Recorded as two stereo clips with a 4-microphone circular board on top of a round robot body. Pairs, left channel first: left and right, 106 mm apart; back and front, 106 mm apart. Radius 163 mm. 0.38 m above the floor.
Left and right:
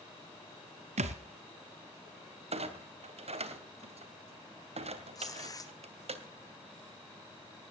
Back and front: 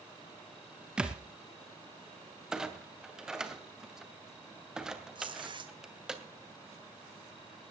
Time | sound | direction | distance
1.0 | a thud | 85° right | 1.5 m
2.5 | a clunk | 85° right | 2.5 m
5.2 | tearing paper | 40° left | 2 m